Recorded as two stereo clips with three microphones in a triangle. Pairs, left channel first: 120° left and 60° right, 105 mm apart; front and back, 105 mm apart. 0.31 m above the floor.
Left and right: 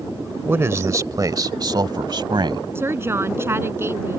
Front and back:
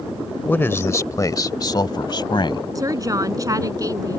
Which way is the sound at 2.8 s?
125° right.